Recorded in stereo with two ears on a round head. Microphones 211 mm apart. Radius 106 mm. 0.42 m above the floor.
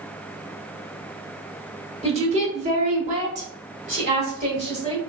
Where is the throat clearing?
No throat clearing in this recording.